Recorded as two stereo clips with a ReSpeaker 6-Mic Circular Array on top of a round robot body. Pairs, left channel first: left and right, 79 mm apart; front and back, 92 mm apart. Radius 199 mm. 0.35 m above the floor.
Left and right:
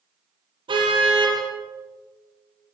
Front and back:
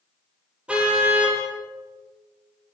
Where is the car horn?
100° right, 8.5 m.